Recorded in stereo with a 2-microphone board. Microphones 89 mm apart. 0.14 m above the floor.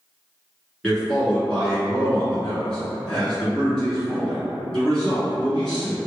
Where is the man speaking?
10° left (ahead or behind), 1.5 m.